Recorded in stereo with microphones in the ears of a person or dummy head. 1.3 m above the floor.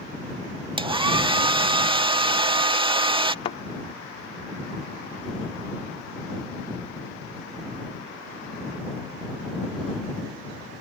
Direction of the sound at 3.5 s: 35° left (ahead or behind).